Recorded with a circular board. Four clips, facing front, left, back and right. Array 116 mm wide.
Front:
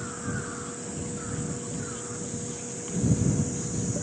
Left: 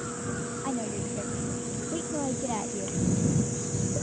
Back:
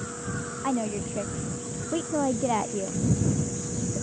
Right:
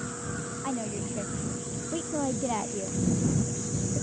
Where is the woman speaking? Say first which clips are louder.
Even, back 8 dB; straight behind; by 3.0 s 170° right.